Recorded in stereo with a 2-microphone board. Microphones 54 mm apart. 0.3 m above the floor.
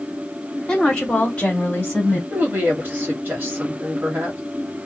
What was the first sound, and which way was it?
A woman speaking, 10° left (ahead or behind).